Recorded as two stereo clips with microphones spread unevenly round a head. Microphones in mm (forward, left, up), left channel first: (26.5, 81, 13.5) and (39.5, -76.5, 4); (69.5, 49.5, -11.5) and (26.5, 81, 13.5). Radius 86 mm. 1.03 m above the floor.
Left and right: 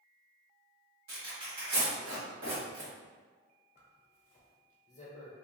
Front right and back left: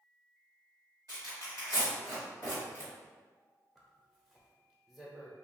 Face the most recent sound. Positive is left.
turn(degrees=75)